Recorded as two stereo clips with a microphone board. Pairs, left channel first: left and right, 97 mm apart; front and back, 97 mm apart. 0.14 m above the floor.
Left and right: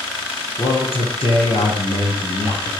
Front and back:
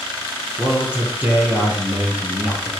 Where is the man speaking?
100° left, 3.5 m.